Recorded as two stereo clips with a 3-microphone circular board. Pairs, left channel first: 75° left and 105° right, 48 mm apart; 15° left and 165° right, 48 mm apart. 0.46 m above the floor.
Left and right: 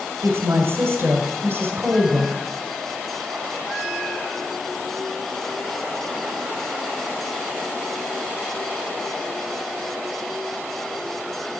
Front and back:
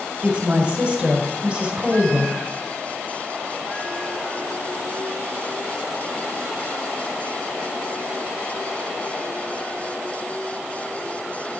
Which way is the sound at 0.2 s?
80° right.